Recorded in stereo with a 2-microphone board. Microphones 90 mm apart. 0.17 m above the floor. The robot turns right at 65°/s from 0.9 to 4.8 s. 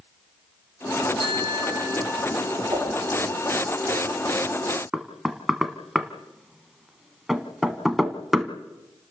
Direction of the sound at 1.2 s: 75° right.